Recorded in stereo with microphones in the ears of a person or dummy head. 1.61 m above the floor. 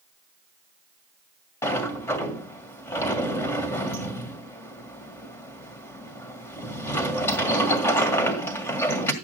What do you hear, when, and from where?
1.6 s a sliding door: 15° left (ahead or behind), 1.9 m